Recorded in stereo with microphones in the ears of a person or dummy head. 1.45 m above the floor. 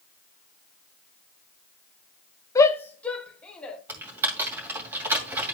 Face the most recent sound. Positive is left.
turn(degrees=-10)  # may be behind; listen again after turning